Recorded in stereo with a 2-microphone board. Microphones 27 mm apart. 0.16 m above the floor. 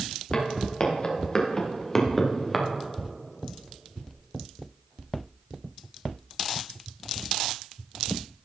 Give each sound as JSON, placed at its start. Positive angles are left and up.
{"t": 0.3, "sound": "footsteps", "side_deg": 45, "distance_m": 3.5}